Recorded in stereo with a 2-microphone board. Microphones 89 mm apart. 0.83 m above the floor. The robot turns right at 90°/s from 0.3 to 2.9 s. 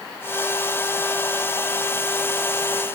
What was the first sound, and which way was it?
Only background noise.